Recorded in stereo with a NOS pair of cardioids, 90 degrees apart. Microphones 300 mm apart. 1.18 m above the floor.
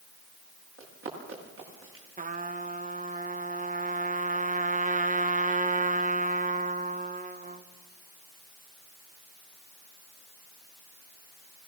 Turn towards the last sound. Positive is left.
turn(degrees=-25)